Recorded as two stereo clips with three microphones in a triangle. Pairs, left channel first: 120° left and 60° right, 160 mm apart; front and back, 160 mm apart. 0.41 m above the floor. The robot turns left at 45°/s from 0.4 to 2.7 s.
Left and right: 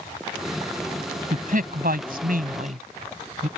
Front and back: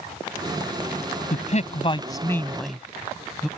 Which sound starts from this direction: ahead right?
A man speaking, at 1.3 s.